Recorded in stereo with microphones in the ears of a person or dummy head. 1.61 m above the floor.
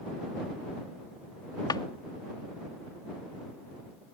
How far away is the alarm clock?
No alarm clock in this recording.